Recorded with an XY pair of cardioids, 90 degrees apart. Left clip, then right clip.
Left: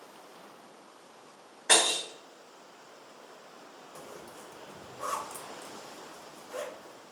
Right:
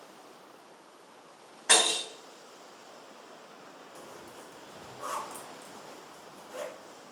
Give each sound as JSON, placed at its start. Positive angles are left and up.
{"t": 1.7, "sound": "breaking glass", "azimuth_deg": -55, "distance_m": 1.9}
{"t": 4.0, "sound": "a zipper", "azimuth_deg": 25, "distance_m": 0.7}